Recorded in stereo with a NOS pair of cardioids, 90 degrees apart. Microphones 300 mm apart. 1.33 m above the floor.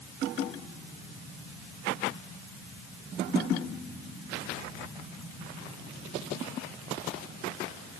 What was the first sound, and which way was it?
Only background noise.